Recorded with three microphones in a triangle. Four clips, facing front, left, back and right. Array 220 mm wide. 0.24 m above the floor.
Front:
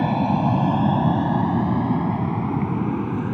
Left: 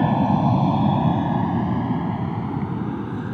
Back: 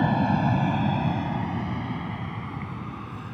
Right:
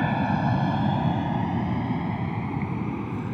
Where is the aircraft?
75° left; by 3.4 s 10° left.